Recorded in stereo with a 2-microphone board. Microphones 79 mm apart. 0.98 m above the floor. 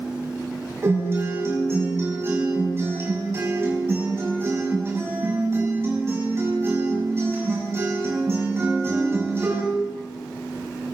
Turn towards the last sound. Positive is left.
turn(degrees=-35)  # may be behind; listen again after turning